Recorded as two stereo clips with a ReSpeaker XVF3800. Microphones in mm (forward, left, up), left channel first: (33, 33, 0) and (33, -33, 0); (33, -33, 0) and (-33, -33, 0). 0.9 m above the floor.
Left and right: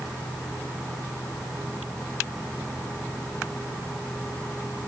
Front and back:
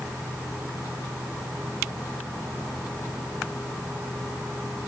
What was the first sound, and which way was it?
Only background noise.